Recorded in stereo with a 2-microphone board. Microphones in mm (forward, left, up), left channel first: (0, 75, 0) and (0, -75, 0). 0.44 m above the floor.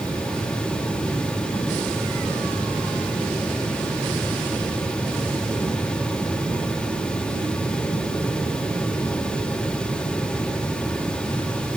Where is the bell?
No bell in this recording.